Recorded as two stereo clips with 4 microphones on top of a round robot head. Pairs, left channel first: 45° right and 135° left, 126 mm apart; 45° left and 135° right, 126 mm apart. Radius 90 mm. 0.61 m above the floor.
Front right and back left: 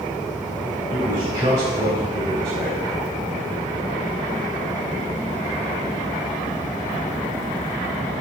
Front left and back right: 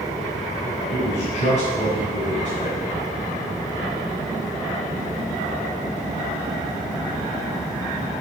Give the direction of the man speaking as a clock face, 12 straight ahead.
9 o'clock.